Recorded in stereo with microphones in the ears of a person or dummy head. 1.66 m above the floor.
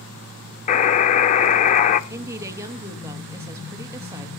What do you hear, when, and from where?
0.7 s a buzzer: 40° left (ahead or behind), 0.6 m
2.1 s a woman speaking: 20° right (ahead or behind), 1.8 m